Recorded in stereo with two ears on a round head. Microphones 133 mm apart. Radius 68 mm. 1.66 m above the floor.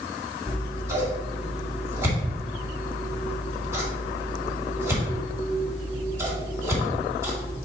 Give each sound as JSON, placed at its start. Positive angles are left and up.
{"t": 0.5, "sound": "scissors", "side_deg": -20, "distance_m": 2.0}